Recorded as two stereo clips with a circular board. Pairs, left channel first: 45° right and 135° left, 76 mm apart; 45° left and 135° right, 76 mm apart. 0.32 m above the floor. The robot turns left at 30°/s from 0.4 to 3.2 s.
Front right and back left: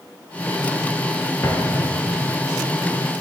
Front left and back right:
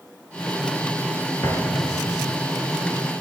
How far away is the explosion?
About 3.5 m.